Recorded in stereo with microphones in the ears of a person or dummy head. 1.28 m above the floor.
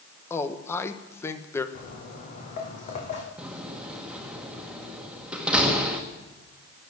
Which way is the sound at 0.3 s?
10° left (ahead or behind).